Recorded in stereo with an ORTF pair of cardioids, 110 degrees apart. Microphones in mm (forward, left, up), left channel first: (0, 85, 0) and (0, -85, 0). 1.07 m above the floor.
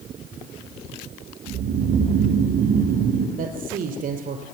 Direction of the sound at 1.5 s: 70° right.